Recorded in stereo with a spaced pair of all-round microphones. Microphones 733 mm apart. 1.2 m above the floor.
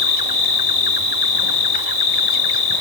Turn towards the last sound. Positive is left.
turn(degrees=55)  # may be behind; listen again after turning